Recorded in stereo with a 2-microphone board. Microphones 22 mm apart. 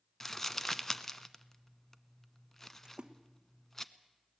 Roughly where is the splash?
Right.